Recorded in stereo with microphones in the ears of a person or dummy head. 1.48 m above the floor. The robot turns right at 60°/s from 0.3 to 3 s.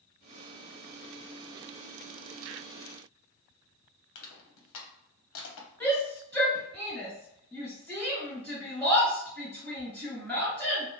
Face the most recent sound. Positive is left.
turn(degrees=5)  # may be behind; listen again after turning